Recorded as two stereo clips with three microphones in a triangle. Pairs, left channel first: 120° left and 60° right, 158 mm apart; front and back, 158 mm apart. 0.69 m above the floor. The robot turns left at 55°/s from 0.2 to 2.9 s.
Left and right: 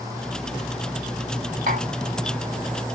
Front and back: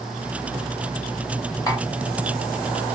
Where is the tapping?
65° right, 2 m; by 1.9 s 80° right, 2 m.